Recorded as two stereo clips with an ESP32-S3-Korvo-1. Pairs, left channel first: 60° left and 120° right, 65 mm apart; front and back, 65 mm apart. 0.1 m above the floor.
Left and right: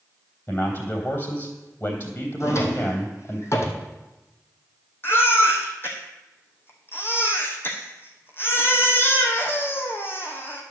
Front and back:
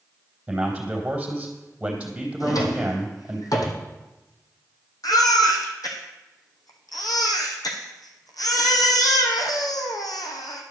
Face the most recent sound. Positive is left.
turn(degrees=5)